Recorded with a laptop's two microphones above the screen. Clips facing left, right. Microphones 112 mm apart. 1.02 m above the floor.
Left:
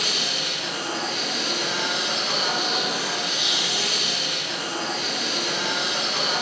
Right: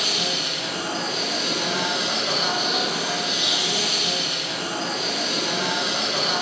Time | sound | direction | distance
0.0 | a machine running | 30° right (ahead or behind) | 1.8 m